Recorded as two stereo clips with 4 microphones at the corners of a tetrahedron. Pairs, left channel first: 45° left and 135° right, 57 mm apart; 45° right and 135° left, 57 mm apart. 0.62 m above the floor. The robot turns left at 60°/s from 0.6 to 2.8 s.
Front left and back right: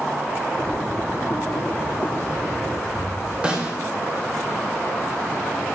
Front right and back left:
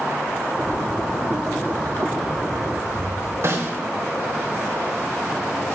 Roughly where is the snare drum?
Behind left.